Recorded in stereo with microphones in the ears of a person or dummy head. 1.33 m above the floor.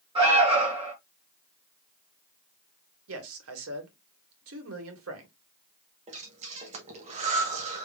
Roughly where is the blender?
I don't hear a blender.